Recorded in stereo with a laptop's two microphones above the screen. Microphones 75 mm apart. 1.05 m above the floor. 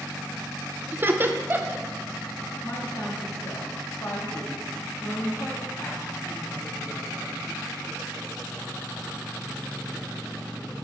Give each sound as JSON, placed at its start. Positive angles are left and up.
{"t": 0.9, "sound": "laughter", "side_deg": -30, "distance_m": 0.5}
{"t": 2.6, "sound": "a woman speaking", "side_deg": 50, "distance_m": 1.7}